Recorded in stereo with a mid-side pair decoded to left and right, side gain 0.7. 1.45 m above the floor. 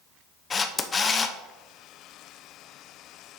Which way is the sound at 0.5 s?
25° left.